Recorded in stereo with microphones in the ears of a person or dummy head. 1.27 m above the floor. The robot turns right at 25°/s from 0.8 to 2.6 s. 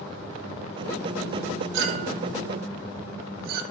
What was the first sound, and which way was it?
A clink, 60° right (ahead or behind).